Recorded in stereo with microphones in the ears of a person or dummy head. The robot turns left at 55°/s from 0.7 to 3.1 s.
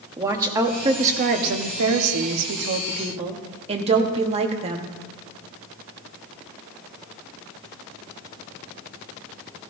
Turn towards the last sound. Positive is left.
turn(degrees=-150)